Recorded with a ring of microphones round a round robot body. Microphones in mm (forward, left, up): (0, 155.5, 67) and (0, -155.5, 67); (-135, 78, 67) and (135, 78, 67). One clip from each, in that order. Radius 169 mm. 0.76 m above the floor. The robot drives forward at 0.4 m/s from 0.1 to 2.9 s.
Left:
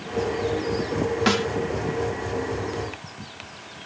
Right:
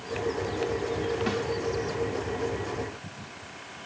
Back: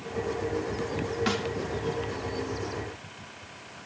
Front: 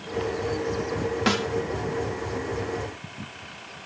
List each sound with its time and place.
1.3 s a snare drum: 60° left